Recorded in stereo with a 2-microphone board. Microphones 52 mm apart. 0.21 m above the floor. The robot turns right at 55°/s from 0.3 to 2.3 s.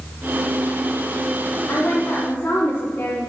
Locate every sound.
1.7 s a woman speaking: 85° left, 2 m; by 3.2 s 120° left, 2 m